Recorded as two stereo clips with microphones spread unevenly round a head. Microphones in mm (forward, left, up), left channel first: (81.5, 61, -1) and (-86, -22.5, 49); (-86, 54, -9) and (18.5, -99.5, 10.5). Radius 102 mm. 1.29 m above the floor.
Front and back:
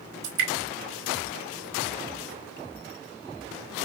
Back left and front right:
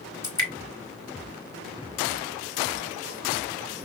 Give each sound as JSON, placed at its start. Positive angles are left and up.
{"t": 0.2, "sound": "dripping", "azimuth_deg": -160, "distance_m": 1.8}